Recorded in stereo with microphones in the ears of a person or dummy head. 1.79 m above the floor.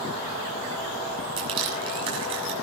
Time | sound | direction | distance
1.4 | crushing | 25° right (ahead or behind) | 6.5 m